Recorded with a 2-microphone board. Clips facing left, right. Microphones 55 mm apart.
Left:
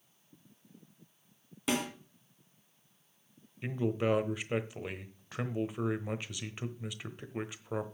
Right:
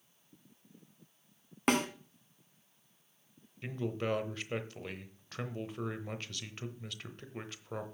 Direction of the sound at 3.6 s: 15° left (ahead or behind).